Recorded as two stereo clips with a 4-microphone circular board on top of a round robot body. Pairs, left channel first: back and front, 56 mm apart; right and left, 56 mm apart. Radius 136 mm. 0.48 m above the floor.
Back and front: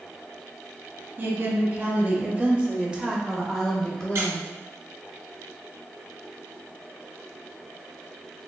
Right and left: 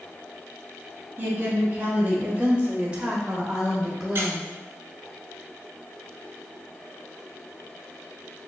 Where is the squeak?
40° left, 0.5 m.